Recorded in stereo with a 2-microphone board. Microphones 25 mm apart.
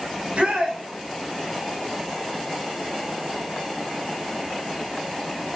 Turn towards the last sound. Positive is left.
turn(degrees=-65)  # may be behind; listen again after turning